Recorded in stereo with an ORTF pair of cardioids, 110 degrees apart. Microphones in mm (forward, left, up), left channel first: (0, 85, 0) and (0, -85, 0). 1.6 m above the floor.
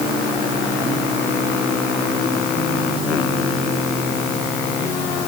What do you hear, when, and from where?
Only background noise.